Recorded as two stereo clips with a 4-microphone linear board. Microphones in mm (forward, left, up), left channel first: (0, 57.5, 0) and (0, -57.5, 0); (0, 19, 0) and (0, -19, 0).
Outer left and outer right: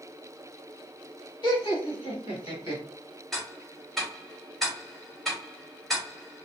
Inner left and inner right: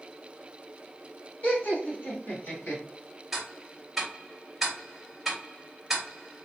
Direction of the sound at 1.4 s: 40° left (ahead or behind).